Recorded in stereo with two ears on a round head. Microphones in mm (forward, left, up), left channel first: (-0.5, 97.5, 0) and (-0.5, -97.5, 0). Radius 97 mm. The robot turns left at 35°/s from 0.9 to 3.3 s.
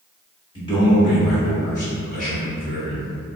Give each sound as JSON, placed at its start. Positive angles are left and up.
{"t": 0.6, "sound": "a man speaking", "azimuth_deg": 145, "distance_m": 1.0}